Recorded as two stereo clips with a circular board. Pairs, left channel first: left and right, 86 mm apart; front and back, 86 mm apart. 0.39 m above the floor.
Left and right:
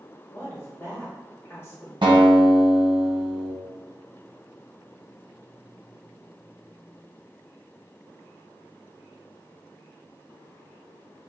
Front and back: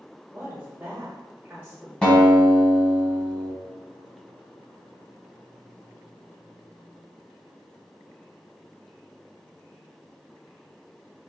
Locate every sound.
0.3 s a woman speaking: 125° left, 1.2 m
2.0 s a guitar: 80° right, 1.4 m